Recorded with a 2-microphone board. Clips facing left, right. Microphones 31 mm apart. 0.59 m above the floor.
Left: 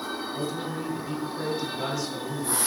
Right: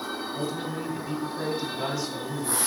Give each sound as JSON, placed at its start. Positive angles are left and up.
{"t": 0.3, "sound": "a man speaking", "side_deg": 0, "distance_m": 1.4}